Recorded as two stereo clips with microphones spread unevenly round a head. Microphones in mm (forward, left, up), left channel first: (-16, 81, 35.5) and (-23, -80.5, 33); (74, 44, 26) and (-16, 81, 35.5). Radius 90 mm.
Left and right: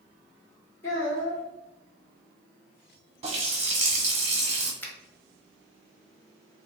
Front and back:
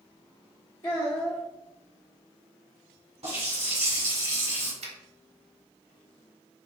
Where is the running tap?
145° right, 1.1 m.